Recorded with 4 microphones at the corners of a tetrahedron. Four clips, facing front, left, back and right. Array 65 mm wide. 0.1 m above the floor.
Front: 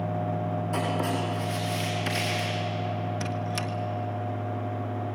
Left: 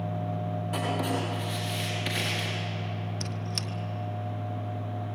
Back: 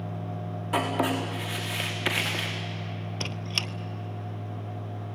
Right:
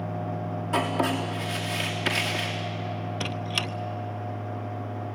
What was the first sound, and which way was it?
Writing, 150° right.